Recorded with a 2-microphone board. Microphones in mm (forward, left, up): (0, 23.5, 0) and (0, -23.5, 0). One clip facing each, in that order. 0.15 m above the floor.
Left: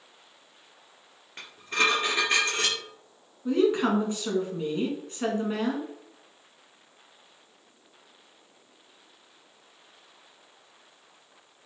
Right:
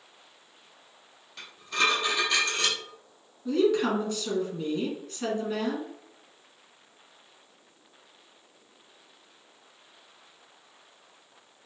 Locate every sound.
1.4 s dishes clattering: 40° left (ahead or behind), 1.7 m
3.5 s a woman speaking: 25° left (ahead or behind), 1.3 m